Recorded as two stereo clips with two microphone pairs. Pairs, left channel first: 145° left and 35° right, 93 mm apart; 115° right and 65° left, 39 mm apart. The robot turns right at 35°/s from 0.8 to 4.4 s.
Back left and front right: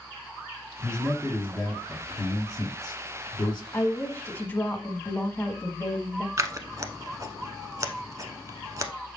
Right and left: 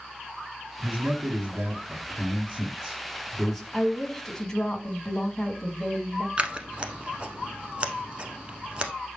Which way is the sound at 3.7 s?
170° left.